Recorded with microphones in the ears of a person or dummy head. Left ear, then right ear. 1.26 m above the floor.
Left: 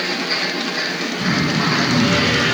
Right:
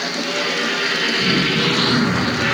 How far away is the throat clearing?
About 2.5 m.